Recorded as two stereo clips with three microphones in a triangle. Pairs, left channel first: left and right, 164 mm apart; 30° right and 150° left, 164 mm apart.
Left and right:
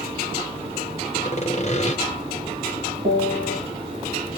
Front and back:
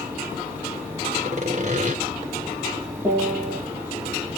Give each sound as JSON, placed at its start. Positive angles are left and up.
{"t": 1.2, "sound": "sawing", "azimuth_deg": 125, "distance_m": 0.8}
{"t": 3.0, "sound": "a piano", "azimuth_deg": -145, "distance_m": 1.0}